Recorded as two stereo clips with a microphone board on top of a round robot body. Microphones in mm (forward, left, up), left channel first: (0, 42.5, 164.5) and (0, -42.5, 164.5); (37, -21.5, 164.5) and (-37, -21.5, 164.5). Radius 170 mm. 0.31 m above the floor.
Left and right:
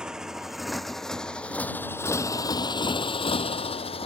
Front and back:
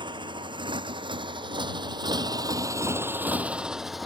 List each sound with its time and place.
0.0 s a motorcycle: 175° right; by 4.1 s 90° left